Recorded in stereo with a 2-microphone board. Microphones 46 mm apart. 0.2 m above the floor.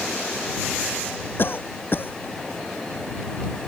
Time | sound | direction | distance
1.4 | a cough | 50° left (ahead or behind) | ?